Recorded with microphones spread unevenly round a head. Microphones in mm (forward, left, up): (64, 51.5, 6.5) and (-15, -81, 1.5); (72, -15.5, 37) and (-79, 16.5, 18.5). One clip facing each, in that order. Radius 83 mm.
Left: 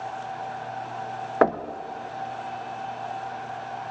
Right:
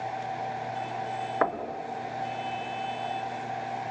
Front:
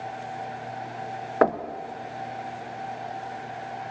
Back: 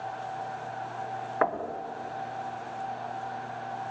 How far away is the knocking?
About 0.6 m.